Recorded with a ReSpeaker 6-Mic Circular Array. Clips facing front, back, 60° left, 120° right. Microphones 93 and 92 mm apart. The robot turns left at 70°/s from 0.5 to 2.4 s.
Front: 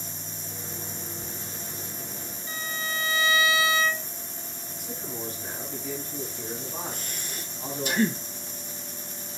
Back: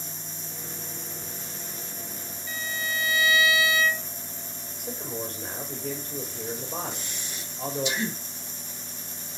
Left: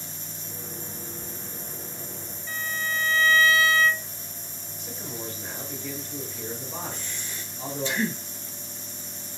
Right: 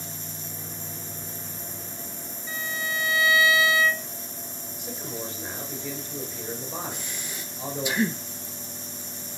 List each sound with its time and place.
2.5 s a violin: 45° right, 0.5 m
4.8 s a man speaking: 160° left, 2.5 m
6.9 s breathing: 45° right, 1.1 m